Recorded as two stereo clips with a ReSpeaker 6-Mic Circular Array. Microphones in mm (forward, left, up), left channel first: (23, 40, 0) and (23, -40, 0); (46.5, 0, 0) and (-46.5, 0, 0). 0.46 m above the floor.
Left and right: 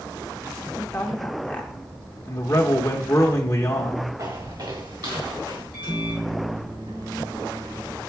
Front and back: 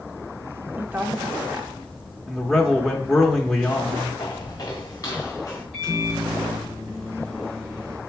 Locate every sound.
0.8 s a woman speaking: 145° left, 0.7 m
2.3 s a man speaking: 80° left, 0.8 m
4.2 s footsteps: 50° right, 2 m; by 5.6 s 55° right, 3.5 m
5.7 s a microwave: 85° right, 4 m